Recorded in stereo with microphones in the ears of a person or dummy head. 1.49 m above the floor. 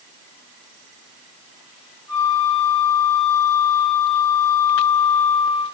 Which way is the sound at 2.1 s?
25° left (ahead or behind).